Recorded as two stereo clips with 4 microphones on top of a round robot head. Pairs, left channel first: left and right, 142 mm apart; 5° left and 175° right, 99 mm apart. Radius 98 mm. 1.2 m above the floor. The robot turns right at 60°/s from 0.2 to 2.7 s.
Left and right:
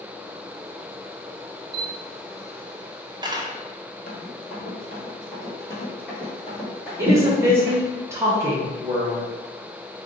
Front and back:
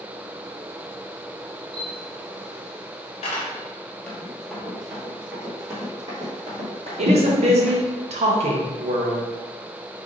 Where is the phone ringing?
No phone ringing in this recording.